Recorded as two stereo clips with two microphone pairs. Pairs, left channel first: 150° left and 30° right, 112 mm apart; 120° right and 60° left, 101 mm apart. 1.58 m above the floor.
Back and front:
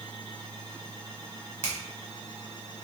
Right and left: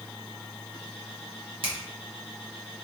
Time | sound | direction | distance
1.6 | a finger snap | 40° left | 1.3 m